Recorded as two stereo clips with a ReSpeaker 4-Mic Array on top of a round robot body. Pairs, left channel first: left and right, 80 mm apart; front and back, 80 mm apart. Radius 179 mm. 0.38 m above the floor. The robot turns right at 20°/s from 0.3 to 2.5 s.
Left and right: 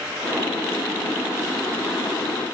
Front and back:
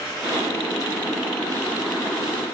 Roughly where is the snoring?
I don't hear snoring.